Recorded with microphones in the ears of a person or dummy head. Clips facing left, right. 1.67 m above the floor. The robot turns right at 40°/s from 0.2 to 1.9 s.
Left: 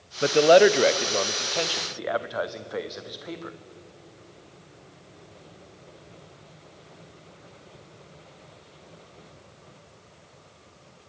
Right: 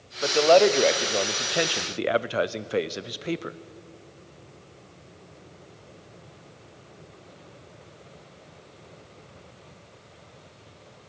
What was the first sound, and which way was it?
A man speaking, 150° left.